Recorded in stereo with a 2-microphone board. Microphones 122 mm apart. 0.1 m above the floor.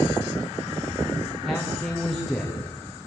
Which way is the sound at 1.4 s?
Centre (ahead or behind).